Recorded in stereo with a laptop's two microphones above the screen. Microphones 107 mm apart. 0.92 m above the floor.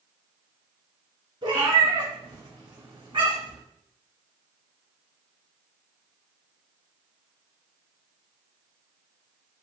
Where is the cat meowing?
55° right (ahead or behind), 1.8 m.